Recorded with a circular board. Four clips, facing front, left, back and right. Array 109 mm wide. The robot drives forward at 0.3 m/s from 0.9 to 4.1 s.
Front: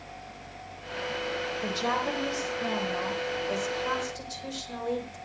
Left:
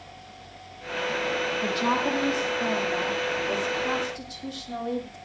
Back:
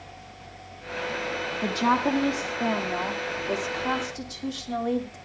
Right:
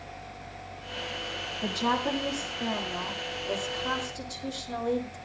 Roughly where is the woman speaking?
Behind.